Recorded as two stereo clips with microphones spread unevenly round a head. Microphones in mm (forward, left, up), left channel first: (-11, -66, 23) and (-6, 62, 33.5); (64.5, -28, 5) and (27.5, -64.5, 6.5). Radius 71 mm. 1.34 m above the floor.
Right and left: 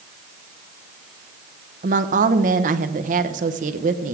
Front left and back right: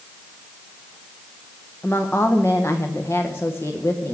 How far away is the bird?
No bird in this recording.